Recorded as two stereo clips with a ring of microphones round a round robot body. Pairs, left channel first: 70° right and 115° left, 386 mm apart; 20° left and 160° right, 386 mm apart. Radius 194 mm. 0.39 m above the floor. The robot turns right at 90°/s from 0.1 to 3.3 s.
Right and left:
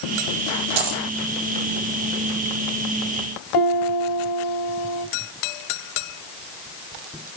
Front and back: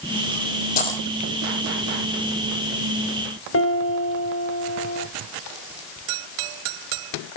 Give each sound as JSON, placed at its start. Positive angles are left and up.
{"t": 0.8, "sound": "a dropped coin", "azimuth_deg": 90, "distance_m": 1.4}
{"t": 3.5, "sound": "a piano", "azimuth_deg": -35, "distance_m": 2.5}